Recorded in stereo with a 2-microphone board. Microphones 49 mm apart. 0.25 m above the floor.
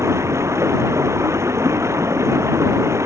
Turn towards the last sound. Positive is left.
turn(degrees=-70)  # may be behind; listen again after turning